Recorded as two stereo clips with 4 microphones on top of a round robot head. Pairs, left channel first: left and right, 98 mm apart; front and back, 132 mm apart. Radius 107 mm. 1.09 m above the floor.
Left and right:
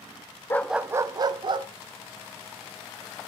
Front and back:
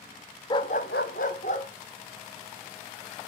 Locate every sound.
0.5 s a dog barking: 40° left, 0.5 m; by 1.7 s 50° right, 1.4 m